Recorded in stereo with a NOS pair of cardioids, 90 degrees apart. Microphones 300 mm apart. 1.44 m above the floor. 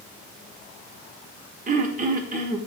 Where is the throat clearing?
25° right, 1.2 m.